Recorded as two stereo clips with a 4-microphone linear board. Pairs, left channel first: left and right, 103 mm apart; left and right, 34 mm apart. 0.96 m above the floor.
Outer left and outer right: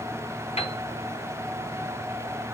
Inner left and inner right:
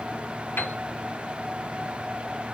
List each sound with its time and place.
0.6 s a piano: 75° left (ahead or behind), 2.0 m